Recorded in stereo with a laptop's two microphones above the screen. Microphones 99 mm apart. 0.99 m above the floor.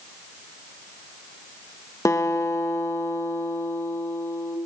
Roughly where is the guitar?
Left.